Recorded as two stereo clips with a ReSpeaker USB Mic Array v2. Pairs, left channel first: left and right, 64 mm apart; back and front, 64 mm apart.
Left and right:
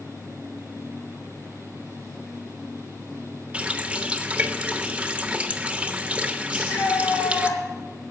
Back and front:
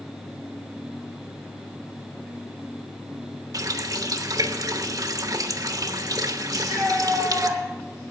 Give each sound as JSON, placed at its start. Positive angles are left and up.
{"t": 3.5, "sound": "a running tap", "azimuth_deg": -20, "distance_m": 1.0}
{"t": 6.5, "sound": "a shout", "azimuth_deg": 85, "distance_m": 6.5}